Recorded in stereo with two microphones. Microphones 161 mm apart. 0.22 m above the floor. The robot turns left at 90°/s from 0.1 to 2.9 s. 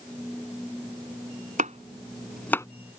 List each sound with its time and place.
1.6 s chopping: 55° right (ahead or behind); by 2.7 s 20° left (ahead or behind)